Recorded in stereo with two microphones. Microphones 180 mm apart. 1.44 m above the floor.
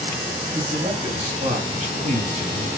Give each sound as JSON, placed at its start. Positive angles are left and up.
{"t": 0.5, "sound": "a man speaking", "side_deg": -40, "distance_m": 3.5}